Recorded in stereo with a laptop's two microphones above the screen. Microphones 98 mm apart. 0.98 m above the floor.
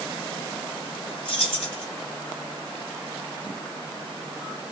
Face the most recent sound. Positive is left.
turn(degrees=65)  # may be behind; listen again after turning